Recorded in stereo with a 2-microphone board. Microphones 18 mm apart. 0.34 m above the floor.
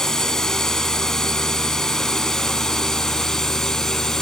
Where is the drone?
30° left (ahead or behind).